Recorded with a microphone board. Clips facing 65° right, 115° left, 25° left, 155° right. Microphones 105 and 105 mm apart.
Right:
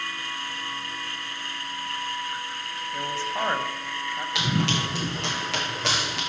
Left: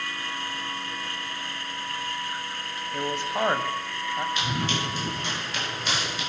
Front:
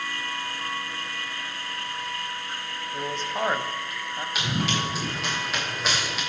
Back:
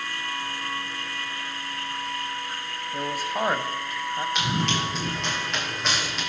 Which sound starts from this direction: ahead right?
Running footsteps, at 4.3 s.